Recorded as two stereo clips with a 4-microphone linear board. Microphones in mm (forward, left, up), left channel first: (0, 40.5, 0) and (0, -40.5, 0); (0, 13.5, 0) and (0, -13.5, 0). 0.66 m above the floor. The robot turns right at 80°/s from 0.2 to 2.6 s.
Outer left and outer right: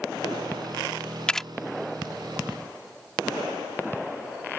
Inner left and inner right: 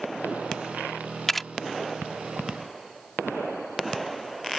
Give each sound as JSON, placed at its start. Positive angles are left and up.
{"t": 1.3, "sound": "a camera shutter", "side_deg": 10}